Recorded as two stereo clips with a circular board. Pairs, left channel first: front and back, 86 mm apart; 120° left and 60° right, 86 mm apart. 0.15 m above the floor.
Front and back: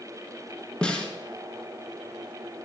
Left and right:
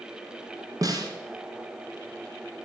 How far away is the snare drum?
About 1.8 m.